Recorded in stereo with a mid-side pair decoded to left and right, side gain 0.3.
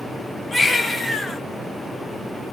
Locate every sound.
0.5 s a baby crying: 40° left, 1.3 m